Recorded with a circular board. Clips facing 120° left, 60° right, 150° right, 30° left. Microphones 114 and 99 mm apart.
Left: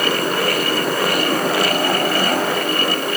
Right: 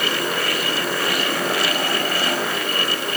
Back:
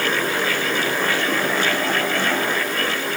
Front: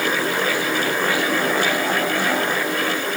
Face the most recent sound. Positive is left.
No sound to turn to.